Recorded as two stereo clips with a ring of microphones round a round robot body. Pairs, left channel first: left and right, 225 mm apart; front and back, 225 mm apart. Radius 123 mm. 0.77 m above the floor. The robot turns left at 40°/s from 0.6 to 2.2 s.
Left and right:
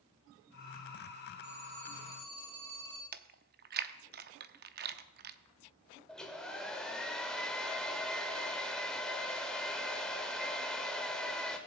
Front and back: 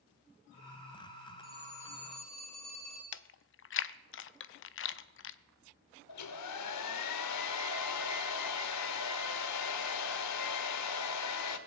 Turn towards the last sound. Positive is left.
turn(degrees=0)